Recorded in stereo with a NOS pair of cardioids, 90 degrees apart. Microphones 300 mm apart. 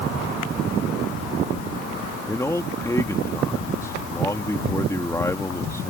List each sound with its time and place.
2.2 s a man speaking: 10° left